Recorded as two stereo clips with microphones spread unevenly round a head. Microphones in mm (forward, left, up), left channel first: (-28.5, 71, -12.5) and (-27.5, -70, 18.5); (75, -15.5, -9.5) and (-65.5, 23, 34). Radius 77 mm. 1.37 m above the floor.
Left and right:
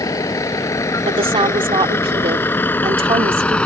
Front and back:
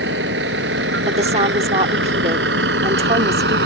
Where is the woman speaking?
145° right.